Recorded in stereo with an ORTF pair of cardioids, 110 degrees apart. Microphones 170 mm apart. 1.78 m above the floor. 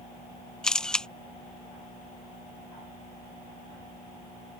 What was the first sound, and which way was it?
A camera shutter, 5° left.